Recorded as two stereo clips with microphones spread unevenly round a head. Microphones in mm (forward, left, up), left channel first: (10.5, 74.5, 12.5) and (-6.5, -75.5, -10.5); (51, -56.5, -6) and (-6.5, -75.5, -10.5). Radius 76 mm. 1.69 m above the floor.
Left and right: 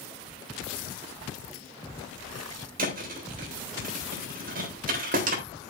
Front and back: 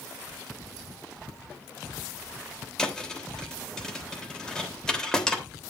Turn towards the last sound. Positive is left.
turn(degrees=-60)